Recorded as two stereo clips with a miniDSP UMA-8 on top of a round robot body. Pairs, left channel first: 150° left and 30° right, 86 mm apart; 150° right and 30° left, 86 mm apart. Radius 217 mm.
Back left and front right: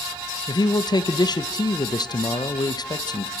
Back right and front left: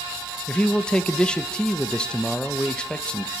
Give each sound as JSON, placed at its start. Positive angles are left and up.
{"t": 0.5, "sound": "a man speaking", "azimuth_deg": 135, "distance_m": 1.3}